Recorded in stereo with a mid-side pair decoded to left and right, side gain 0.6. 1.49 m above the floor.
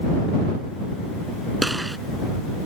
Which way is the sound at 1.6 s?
10° right.